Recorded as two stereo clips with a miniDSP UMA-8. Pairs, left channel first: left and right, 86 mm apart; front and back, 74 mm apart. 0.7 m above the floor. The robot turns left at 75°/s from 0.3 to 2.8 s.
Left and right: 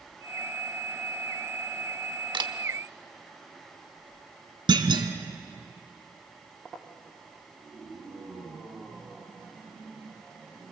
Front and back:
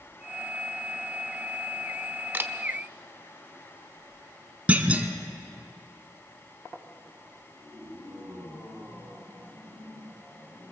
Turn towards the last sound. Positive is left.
turn(degrees=-110)